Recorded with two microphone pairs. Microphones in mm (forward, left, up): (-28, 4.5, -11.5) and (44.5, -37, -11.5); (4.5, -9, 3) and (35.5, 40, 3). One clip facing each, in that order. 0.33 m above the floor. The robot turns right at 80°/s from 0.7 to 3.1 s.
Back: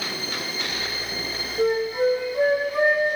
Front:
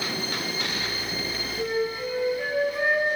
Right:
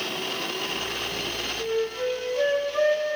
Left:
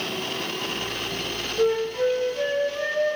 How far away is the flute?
About 4.5 m.